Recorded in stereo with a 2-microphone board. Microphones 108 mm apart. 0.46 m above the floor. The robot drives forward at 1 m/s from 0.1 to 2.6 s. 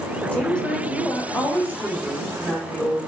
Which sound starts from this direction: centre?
A woman speaking, at 0.3 s.